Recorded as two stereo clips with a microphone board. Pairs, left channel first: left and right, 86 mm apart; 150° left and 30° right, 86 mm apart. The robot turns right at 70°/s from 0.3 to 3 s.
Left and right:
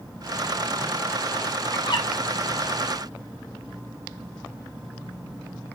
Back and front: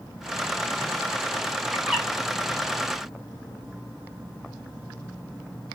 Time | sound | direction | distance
1.7 | a bird | 45° left | 3.5 m